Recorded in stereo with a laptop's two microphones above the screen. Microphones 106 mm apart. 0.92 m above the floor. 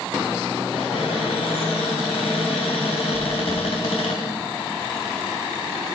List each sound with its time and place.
0.7 s a cupboard door: 75° left (ahead or behind), 2.5 m
3.1 s chewing: 65° left (ahead or behind), 3 m